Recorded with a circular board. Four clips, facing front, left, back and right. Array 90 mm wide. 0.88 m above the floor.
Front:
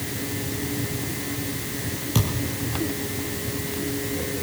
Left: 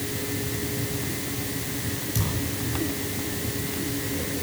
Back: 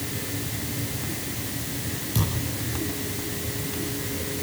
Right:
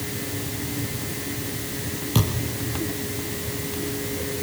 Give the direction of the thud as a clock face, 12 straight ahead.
2 o'clock.